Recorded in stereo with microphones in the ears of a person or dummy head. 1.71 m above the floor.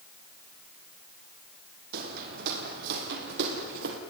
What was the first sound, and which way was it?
Footsteps, 60° right (ahead or behind).